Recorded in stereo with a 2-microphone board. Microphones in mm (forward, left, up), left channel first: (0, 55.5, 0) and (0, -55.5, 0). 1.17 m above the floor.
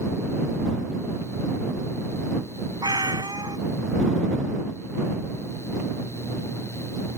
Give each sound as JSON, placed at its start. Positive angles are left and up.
{"t": 2.8, "sound": "a cat meowing", "side_deg": -40}